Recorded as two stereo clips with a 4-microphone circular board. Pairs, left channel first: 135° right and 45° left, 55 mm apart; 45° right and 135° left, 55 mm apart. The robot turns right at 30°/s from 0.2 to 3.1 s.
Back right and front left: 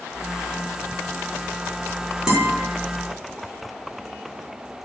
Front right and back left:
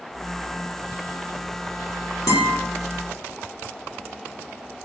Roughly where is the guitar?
Ahead right.